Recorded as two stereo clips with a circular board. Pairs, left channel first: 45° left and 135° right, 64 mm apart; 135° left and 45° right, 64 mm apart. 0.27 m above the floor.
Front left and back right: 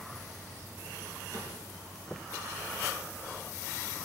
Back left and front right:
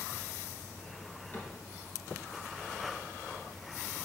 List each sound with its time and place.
1.3 s a cupboard door: 175° right, 2.5 m